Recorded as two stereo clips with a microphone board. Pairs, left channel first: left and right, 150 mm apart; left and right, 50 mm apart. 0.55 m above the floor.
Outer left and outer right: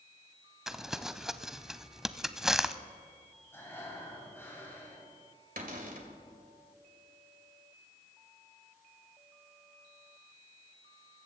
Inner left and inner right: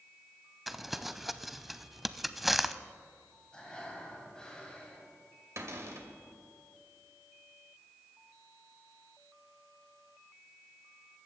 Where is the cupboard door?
70° right (ahead or behind), 2 m.